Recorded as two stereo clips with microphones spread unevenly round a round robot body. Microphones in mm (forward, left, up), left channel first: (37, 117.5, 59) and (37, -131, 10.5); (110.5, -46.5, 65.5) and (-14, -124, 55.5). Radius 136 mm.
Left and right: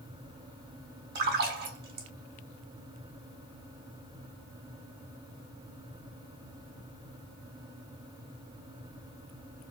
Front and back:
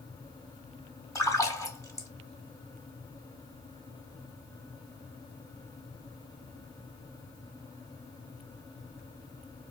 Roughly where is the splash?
Ahead right.